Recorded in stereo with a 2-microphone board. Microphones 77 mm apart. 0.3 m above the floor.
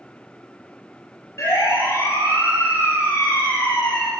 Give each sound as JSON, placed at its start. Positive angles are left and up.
{"t": 1.4, "sound": "a siren", "side_deg": 40, "distance_m": 6.0}